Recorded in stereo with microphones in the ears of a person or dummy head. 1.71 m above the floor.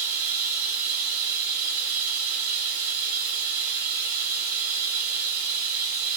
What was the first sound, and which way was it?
Running water, 55° right (ahead or behind).